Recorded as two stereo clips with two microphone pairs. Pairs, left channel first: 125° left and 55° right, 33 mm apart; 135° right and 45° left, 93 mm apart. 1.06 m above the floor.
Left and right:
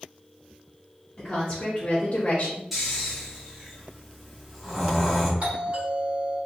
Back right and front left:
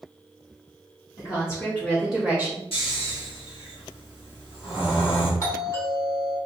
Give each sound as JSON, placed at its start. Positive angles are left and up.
{"t": 1.2, "sound": "a woman speaking", "azimuth_deg": -170, "distance_m": 1.0}
{"t": 2.7, "sound": "snoring", "azimuth_deg": -140, "distance_m": 1.5}
{"t": 5.4, "sound": "a doorbell", "azimuth_deg": -90, "distance_m": 1.9}